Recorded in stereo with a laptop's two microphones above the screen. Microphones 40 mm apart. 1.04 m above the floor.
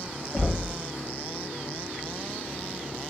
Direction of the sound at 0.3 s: 30° left (ahead or behind).